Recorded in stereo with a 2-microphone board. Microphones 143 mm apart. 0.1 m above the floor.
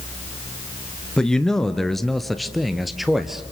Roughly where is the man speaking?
Centre.